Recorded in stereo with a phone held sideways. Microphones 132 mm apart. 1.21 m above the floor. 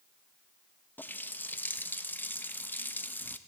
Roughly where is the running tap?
Centre.